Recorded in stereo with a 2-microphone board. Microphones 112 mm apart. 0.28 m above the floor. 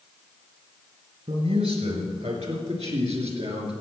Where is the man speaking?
70° right (ahead or behind), 4.5 m; by 3.7 s 60° right (ahead or behind), 4 m.